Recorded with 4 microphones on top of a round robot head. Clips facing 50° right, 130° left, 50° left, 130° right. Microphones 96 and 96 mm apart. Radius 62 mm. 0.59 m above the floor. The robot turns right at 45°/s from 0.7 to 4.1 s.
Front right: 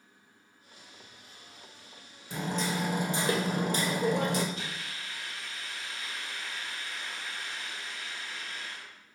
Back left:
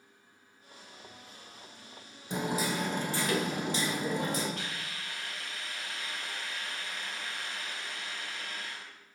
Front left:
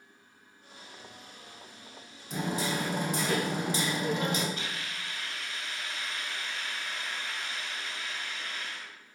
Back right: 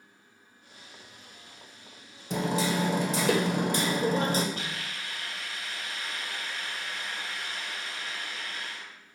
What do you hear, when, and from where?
2.3 s hammering: 160° right, 1.7 m; by 4.5 s 80° right, 1.7 m
4.5 s a hiss: 175° left, 3.5 m